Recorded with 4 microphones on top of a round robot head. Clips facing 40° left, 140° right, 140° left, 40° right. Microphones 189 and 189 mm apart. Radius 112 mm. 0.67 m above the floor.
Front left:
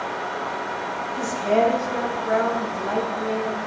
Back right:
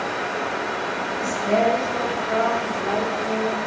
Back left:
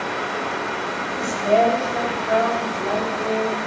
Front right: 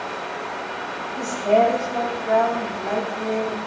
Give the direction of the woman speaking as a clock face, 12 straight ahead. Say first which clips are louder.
Front left 1 dB, even; 9 o'clock.